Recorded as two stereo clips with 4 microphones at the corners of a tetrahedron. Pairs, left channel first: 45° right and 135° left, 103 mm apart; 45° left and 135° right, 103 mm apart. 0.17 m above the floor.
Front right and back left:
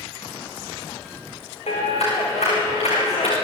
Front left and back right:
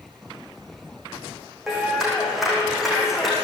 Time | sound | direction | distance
1.7 | a clap | 50° right | 8 m